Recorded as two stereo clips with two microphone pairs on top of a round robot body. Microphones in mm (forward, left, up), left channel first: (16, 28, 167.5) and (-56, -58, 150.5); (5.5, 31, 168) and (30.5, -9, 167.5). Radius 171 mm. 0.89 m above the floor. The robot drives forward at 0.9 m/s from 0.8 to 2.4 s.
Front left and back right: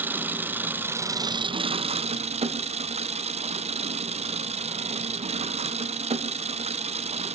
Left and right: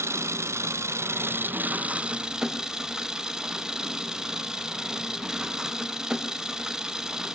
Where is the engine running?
60° right, 1.1 m; by 7.4 s 135° right, 1.4 m.